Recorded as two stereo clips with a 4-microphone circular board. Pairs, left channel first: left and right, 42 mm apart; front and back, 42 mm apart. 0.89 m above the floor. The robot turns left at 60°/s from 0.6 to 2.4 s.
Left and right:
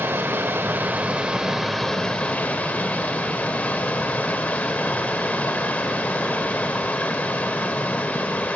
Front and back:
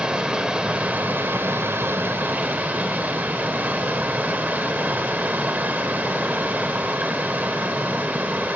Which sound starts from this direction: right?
Running water, at 0.0 s.